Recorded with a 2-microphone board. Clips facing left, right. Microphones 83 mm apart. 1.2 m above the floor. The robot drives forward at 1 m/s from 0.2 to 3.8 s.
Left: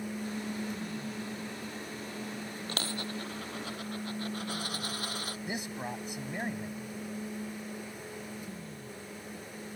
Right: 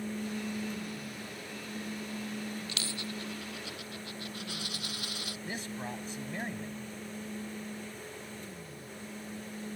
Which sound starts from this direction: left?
A dropped coin, at 2.7 s.